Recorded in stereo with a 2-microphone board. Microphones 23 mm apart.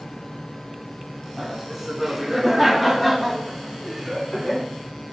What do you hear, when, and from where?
1.4 s laughter: 5° right (ahead or behind), 4 m; by 4.7 s 30° left (ahead or behind), 3 m